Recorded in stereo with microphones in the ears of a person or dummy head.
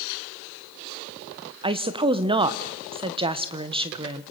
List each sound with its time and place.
1.6 s a woman speaking: 30° right (ahead or behind), 1.1 m